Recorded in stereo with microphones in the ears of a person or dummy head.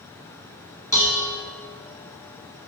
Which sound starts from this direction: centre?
Dishes clattering, at 0.9 s.